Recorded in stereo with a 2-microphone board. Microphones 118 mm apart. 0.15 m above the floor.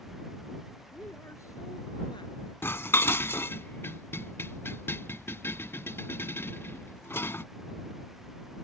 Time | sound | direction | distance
0.9 | a woman speaking | 15° left (ahead or behind) | ?
2.6 | dishes clattering | 20° left (ahead or behind) | ?